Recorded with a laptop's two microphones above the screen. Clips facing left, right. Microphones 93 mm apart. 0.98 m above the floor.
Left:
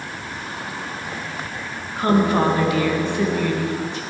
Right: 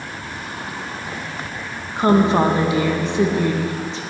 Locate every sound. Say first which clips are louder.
2.0 s a woman speaking: right 3 dB; 20° right (ahead or behind), 0.7 m